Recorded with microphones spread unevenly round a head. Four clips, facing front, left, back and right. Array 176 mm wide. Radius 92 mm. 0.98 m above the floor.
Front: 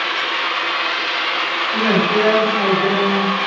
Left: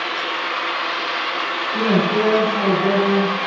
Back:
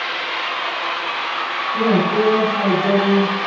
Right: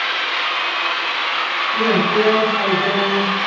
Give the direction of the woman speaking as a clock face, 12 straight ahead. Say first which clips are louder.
Right 1 dB, even; 1 o'clock.